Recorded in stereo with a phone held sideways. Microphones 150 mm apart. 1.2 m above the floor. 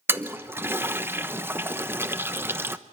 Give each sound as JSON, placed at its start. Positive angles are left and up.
{"t": 0.1, "sound": "a toilet flushing", "side_deg": -15, "distance_m": 1.0}